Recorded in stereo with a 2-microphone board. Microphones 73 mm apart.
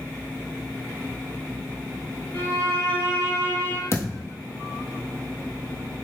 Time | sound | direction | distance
2.3 | a violin | 30° left (ahead or behind) | 1.3 m
3.9 | a thud | 40° left (ahead or behind) | 1.2 m